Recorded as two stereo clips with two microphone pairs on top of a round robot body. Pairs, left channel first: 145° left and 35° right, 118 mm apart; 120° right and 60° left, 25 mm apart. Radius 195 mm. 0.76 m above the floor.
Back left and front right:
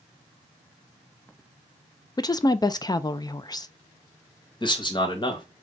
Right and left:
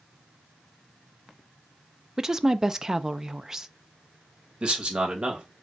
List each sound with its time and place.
2.2 s a woman speaking: 130° left, 0.6 m
4.6 s a man speaking: 105° left, 1.5 m